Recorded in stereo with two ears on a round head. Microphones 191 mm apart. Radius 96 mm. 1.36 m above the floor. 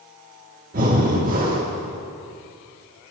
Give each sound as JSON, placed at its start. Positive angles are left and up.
{"t": 0.7, "sound": "breathing", "side_deg": -40, "distance_m": 1.3}